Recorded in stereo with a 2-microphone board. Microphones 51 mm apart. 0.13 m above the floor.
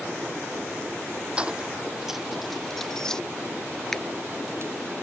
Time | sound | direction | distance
1.4 | keys jangling | 25° right (ahead or behind) | ?
3.9 | a finger snap | 10° left (ahead or behind) | ?